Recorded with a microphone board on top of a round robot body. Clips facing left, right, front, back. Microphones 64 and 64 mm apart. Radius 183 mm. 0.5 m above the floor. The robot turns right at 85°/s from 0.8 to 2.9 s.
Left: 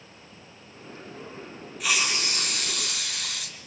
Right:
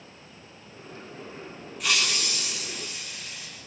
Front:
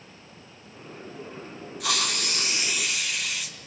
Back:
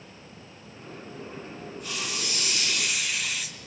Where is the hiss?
Straight ahead, 4 m; by 3.6 s 90° left, 4 m.